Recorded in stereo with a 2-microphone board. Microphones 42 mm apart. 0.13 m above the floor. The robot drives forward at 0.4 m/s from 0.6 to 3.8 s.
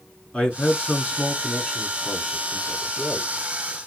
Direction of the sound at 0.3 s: 25° left (ahead or behind).